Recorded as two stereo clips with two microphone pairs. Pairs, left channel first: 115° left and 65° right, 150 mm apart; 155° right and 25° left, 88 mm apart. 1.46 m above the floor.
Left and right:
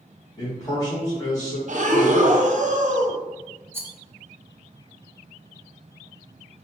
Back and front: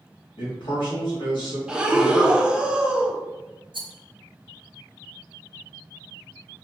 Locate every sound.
0.4 s a man speaking: 175° right, 1.7 m
1.7 s breathing: 60° right, 0.6 m
3.7 s a rattle: 10° left, 0.8 m